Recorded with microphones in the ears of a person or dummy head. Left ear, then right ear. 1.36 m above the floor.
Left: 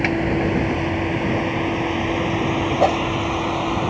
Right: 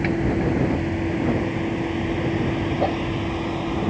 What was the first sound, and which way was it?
A vehicle, 30° left (ahead or behind).